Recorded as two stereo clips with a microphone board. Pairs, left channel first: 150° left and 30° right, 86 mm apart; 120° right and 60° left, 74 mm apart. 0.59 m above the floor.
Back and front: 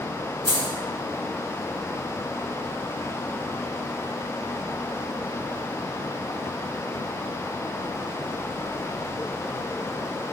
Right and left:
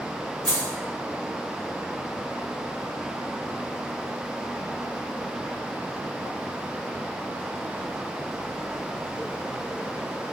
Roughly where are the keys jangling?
Ahead right.